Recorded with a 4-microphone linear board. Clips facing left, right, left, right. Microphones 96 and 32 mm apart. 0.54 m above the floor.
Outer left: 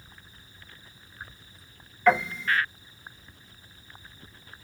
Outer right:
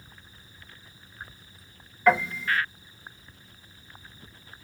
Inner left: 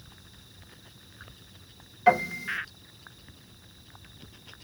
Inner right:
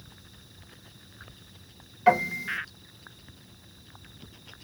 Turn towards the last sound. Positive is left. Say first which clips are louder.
# even, even
turn(degrees=-5)  # may be behind; listen again after turning